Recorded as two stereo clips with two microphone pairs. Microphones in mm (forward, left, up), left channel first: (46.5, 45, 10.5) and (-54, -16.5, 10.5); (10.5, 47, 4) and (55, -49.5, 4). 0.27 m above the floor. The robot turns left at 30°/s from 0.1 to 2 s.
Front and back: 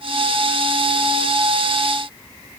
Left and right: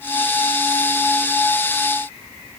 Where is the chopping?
No chopping in this recording.